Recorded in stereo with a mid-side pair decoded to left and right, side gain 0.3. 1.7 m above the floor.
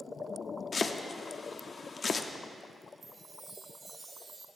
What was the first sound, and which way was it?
Chopping, 55° left.